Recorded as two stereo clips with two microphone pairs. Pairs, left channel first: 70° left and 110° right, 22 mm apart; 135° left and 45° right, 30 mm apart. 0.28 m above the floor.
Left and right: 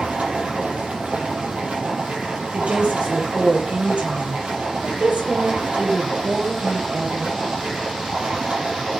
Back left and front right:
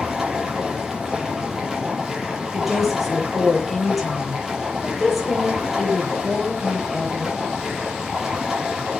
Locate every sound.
0.0 s running water: 120° right, 7.5 m
2.5 s a woman speaking: 130° right, 8 m